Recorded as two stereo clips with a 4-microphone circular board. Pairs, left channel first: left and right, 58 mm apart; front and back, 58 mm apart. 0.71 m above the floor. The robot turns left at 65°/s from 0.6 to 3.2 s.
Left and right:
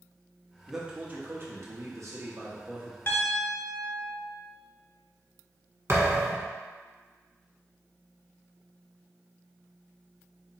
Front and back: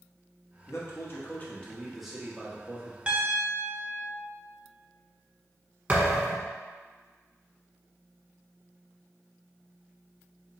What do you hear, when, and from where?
0.7 s a man speaking: 5° right, 0.9 m; by 3.0 s 155° right, 0.9 m
3.1 s a piano: 120° left, 0.8 m; by 4.2 s 110° left, 0.8 m
5.9 s a thud: 120° right, 1.1 m